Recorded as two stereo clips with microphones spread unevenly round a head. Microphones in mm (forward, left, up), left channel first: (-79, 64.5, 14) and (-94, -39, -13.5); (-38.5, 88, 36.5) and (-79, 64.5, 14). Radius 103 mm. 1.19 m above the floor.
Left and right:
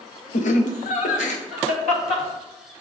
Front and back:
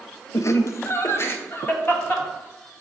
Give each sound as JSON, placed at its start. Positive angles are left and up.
{"t": 0.3, "sound": "laughter", "azimuth_deg": 55, "distance_m": 0.6}